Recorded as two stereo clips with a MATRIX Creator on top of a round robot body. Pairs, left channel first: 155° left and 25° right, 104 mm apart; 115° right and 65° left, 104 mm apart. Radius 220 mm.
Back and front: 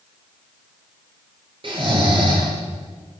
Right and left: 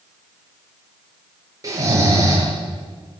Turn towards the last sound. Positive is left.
turn(degrees=10)